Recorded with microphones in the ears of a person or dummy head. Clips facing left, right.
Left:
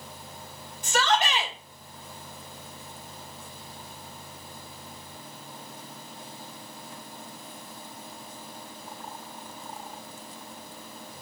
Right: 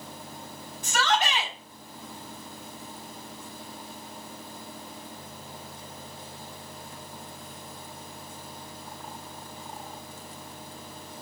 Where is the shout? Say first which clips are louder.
Left 1 dB; 25° left (ahead or behind), 2.5 m.